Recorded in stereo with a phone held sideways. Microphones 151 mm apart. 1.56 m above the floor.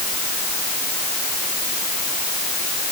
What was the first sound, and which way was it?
Only background noise.